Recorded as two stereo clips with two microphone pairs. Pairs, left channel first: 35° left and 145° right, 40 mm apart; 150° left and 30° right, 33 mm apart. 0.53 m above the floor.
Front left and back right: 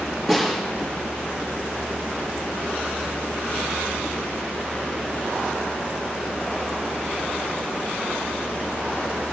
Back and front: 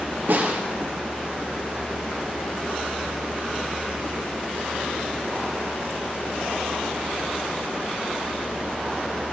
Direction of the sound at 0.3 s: 65° right.